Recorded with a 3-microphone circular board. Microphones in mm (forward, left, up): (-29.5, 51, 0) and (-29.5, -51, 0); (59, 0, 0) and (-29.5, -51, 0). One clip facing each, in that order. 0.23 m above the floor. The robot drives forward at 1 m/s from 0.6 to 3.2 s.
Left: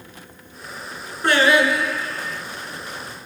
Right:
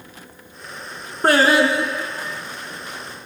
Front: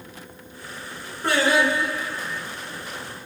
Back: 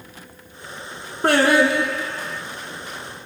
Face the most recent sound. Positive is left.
turn(degrees=-165)